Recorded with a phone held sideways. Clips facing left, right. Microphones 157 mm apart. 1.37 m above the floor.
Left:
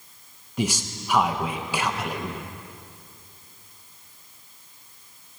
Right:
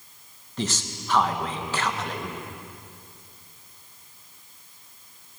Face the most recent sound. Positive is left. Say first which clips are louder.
# left 3 dB
turn(degrees=10)  # may be behind; listen again after turning